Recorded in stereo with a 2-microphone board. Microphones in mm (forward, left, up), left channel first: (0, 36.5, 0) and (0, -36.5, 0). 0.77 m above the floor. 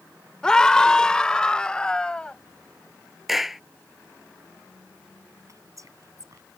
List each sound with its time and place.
0.4 s a scream: 10° left (ahead or behind); by 2.4 s 15° left (ahead or behind)
3.3 s a clap: 5° right (ahead or behind)
5.5 s whispering: 50° right (ahead or behind)